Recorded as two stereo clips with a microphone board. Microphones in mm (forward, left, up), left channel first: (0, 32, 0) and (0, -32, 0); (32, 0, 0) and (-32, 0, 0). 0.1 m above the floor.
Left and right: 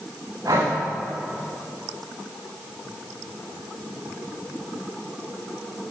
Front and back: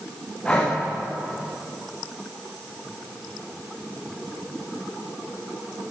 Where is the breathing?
75° right, 9 m.